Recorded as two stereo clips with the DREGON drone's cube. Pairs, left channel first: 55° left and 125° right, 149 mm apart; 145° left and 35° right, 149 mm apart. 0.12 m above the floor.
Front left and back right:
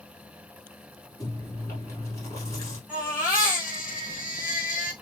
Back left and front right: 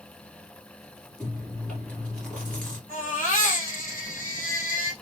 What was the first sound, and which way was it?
Chewing, 75° left.